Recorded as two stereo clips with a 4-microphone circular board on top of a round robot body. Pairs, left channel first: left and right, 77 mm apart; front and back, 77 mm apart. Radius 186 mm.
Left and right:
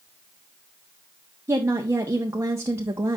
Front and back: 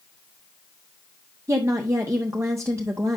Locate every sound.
1.5 s a woman speaking: 135° right, 1.3 m